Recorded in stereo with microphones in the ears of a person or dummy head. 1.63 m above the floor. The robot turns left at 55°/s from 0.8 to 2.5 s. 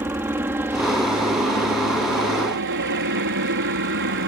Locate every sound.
0.0 s a helicopter: 10° right; by 4.3 s 105° right